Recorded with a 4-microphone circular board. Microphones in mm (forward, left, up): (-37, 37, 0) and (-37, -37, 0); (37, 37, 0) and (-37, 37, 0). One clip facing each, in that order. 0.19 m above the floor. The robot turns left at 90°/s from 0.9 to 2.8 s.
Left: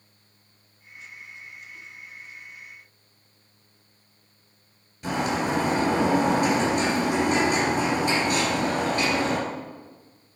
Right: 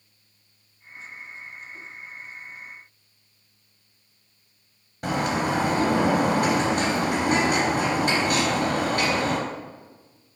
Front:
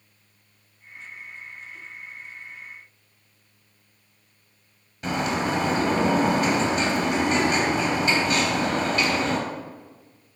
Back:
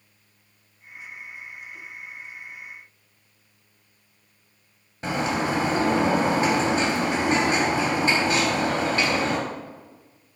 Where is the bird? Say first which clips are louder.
Right 1 dB, even; 125° right, 2.5 m.